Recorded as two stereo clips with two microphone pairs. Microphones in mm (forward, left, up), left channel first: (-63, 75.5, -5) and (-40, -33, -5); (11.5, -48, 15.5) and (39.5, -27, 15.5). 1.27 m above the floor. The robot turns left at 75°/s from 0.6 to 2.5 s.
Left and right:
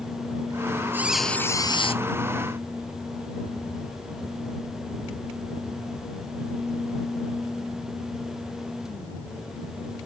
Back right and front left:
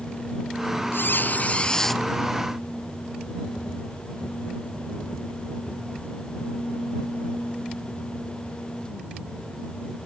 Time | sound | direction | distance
0.9 | a squeak | 150° right | ?